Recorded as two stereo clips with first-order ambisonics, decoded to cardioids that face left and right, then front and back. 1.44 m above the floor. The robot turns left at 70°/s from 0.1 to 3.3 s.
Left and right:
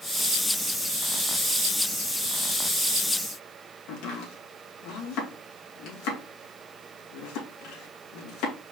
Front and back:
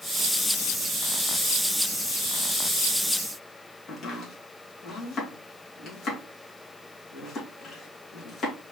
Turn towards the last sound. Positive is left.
turn(degrees=65)